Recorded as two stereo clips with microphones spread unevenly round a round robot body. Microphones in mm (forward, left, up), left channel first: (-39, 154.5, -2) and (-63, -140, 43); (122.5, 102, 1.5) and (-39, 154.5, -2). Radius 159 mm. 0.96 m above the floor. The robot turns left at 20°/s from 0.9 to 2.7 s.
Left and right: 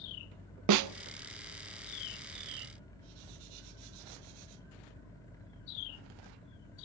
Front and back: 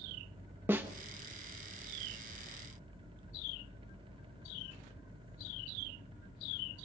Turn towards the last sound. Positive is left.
turn(degrees=-155)